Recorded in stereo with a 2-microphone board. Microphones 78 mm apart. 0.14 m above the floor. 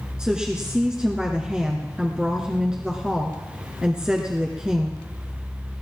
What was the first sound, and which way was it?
A woman speaking, 10° right (ahead or behind).